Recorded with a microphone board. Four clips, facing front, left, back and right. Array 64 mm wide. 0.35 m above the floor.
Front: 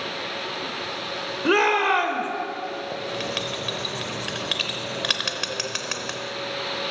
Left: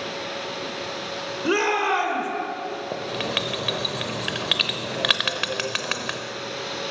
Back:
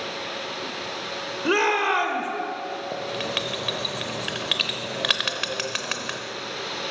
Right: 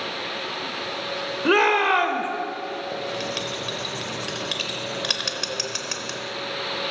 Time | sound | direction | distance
1.4 | a shout | 70° right | 0.9 m
2.9 | writing | 105° left | 0.8 m